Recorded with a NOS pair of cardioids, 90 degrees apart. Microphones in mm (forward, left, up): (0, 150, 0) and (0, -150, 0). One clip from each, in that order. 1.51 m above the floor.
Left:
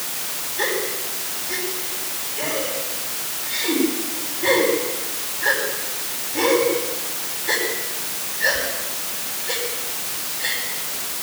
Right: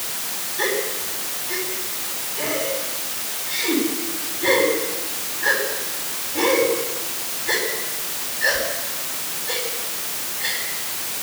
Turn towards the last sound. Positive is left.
turn(degrees=0)